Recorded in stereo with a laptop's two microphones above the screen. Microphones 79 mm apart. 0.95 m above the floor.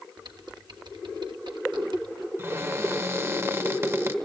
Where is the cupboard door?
35° right (ahead or behind), 0.9 m.